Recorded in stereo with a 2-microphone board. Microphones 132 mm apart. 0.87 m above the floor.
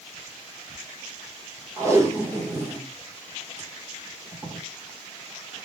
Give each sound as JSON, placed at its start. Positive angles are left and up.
{"t": 1.8, "sound": "tape being pulled", "side_deg": -20, "distance_m": 1.2}